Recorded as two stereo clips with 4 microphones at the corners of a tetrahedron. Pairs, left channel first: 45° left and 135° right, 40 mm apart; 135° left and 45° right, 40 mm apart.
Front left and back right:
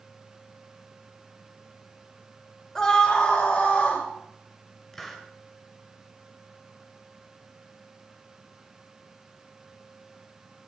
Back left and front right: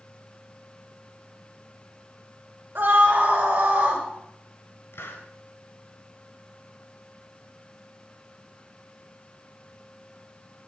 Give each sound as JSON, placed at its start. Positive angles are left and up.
{"t": 2.8, "sound": "a scream", "azimuth_deg": -25, "distance_m": 2.5}
{"t": 4.9, "sound": "a hiss", "azimuth_deg": 125, "distance_m": 1.8}